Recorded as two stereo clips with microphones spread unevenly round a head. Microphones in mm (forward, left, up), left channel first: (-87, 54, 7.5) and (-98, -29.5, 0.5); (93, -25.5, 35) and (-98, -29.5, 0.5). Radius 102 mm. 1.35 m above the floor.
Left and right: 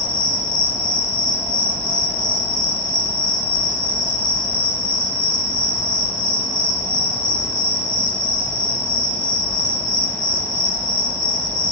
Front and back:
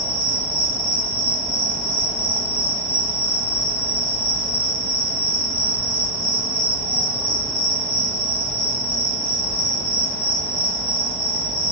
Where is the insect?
90° left, 0.8 m.